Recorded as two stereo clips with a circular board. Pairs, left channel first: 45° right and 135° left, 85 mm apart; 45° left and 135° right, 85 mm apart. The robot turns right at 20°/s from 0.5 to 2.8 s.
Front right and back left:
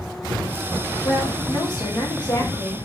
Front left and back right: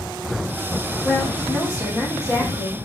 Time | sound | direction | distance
1.0 | a woman speaking | 30° right | 1.9 m